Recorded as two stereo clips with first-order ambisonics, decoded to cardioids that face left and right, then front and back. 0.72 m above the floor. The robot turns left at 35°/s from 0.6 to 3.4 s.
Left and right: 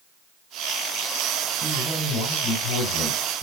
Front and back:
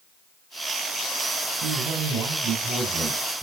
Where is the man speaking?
155° left, 3.5 m; by 3.4 s 90° left, 3.5 m.